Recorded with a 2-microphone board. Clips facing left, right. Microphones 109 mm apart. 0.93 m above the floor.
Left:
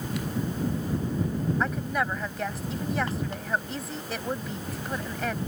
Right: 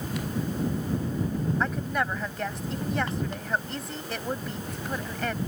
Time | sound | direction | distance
1.6 | a woman speaking | centre (ahead or behind) | ?